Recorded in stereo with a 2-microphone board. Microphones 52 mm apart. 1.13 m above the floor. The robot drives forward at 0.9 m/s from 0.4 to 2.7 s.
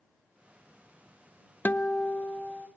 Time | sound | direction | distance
1.6 | a guitar | 35° left (ahead or behind) | 0.5 m